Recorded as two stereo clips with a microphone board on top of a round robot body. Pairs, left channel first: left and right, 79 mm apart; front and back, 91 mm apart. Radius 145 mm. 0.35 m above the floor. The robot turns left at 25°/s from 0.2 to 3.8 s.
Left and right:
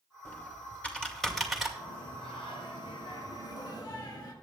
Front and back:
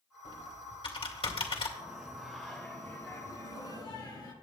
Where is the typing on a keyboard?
30° left, 2.5 m; by 1.7 s 5° right, 2.5 m.